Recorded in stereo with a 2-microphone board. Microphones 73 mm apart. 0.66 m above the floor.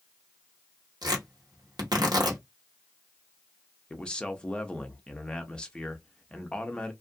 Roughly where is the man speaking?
Centre.